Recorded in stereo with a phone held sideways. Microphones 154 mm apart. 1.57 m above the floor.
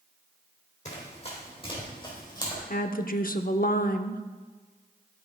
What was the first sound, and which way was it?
Running footsteps, 45° left (ahead or behind).